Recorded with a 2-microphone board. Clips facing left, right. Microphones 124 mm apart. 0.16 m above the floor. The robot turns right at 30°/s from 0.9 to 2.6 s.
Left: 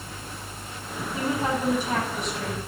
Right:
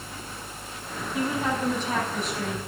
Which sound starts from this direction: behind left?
A woman speaking, at 1.1 s.